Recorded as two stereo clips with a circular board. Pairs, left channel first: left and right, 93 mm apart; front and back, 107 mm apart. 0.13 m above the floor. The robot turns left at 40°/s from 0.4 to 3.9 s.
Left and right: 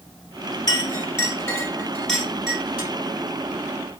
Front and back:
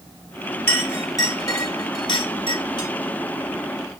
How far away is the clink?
About 1.6 m.